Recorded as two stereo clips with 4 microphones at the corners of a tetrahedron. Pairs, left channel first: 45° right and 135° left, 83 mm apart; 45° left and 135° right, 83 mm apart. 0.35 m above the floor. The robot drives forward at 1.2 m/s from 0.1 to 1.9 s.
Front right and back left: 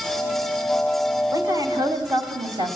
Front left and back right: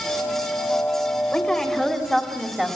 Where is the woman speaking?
120° left, 2.0 m; by 2.8 s 140° left, 2.5 m.